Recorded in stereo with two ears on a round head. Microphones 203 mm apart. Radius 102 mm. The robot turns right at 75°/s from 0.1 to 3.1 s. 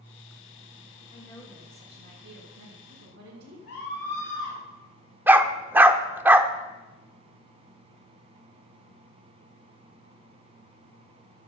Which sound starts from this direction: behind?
A woman speaking, at 1.1 s.